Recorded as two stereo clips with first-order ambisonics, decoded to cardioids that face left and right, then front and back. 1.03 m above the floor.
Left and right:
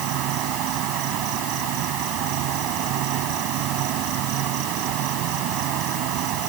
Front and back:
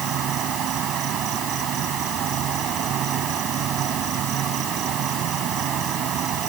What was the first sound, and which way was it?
An insect, 125° right.